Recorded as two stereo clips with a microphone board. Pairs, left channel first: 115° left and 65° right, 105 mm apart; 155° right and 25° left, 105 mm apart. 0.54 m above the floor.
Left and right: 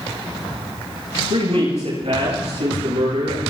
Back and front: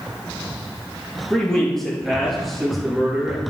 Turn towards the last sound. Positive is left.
turn(degrees=-60)